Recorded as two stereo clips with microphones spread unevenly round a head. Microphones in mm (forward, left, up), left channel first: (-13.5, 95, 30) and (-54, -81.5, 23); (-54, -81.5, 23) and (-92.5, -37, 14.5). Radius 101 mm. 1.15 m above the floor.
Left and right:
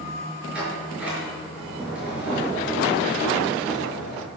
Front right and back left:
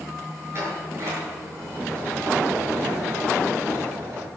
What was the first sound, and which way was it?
A sliding door, 175° left.